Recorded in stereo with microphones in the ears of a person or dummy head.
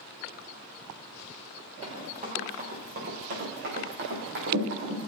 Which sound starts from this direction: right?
Running footsteps, at 1.8 s.